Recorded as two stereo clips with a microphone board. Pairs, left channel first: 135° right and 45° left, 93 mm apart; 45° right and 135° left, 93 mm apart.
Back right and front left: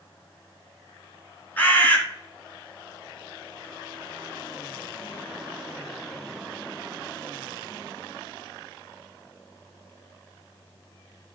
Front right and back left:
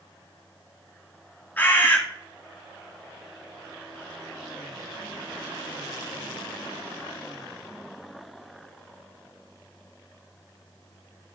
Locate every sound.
1.6 s a bird: 90° right, 1.3 m